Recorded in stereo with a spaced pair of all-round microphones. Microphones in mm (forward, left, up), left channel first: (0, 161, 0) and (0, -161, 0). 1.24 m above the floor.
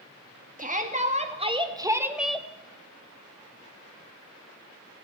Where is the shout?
25° right (ahead or behind), 2.5 m; by 2.5 s 5° left (ahead or behind), 1.0 m.